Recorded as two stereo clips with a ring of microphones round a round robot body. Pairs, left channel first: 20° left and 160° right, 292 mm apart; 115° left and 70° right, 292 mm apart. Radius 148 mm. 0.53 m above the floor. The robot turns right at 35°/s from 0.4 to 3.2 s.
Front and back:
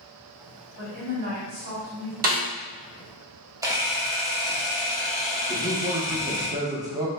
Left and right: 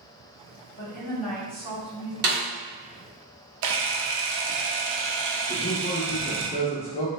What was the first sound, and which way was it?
A woman speaking, 170° right.